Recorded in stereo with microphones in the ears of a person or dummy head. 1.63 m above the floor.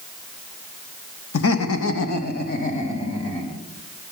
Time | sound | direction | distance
1.3 | laughter | 85° left | 1.0 m